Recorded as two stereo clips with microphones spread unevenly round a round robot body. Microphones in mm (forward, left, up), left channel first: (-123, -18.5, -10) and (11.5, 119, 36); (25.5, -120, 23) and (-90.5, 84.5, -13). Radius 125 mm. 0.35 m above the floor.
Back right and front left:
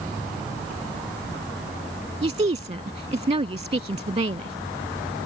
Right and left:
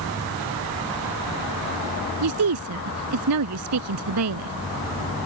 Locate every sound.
2.2 s a woman speaking: 105° left